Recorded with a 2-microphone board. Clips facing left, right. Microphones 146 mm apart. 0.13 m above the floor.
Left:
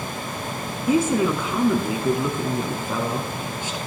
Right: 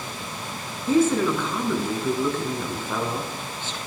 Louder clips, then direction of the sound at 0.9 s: Even; 15° left (ahead or behind).